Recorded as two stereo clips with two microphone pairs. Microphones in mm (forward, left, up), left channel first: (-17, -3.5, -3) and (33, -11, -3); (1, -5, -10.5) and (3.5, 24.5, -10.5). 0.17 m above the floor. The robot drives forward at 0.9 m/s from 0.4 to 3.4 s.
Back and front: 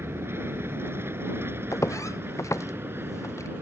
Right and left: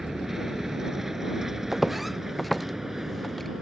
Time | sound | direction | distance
0.0 | an aircraft | 10° left | ?
1.7 | footsteps | 170° left | ?